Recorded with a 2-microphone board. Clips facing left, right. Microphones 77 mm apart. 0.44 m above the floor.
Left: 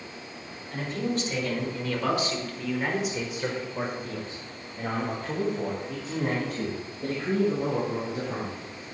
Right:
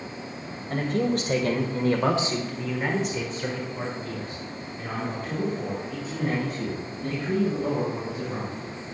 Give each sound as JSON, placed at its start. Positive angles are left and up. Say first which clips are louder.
{"t": 0.7, "sound": "a man speaking", "louder": "right 5 dB", "side_deg": -60, "distance_m": 2.5}